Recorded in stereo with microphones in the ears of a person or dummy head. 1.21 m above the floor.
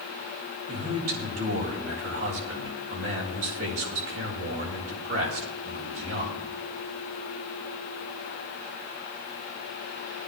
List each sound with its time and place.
0.7 s a man speaking: 80° right, 4.5 m